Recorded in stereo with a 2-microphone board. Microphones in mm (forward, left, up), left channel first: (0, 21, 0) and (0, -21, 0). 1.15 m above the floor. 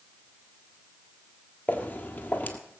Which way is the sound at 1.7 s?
35° left (ahead or behind).